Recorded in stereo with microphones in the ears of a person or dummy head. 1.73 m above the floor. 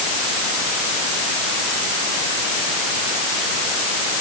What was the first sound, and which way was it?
Only background noise.